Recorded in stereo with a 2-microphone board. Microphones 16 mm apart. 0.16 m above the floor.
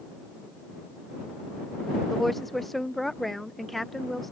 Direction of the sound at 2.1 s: 15° left (ahead or behind).